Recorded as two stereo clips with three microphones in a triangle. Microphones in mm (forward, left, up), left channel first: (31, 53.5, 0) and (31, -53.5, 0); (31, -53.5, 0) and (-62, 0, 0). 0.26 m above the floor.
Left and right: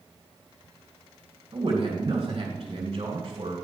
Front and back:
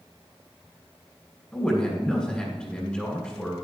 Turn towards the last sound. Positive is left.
turn(degrees=-110)